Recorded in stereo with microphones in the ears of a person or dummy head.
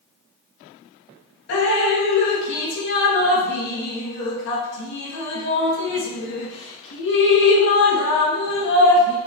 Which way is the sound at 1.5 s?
65° left (ahead or behind).